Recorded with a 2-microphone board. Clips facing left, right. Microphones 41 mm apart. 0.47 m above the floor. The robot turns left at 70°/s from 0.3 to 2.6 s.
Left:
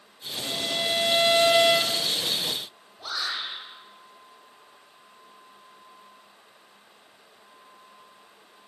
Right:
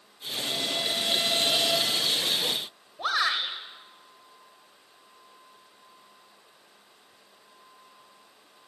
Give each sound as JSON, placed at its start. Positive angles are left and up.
{"t": 0.4, "sound": "a violin", "azimuth_deg": 180, "distance_m": 1.0}
{"t": 3.0, "sound": "a shout", "side_deg": -55, "distance_m": 2.5}